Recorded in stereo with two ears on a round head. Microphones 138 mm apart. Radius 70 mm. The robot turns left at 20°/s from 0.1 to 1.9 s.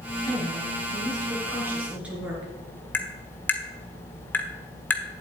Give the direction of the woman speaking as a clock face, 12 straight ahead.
5 o'clock.